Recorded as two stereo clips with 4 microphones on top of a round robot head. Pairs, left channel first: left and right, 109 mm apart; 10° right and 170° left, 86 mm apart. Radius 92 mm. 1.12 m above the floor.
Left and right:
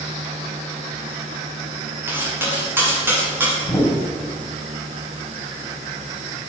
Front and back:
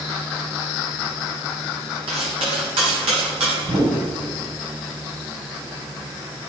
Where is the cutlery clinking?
160° right, 7 m.